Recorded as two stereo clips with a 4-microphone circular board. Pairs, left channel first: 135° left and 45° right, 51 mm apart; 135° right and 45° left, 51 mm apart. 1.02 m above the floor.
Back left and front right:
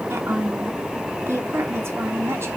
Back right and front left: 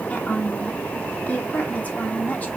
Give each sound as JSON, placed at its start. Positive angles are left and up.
{"t": 0.1, "sound": "a woman speaking", "azimuth_deg": -75, "distance_m": 2.5}